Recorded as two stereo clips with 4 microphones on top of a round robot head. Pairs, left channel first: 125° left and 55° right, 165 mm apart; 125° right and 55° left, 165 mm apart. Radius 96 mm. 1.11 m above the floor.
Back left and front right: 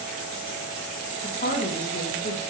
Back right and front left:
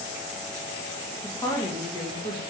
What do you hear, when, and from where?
1.2 s a woman speaking: 165° left, 1.8 m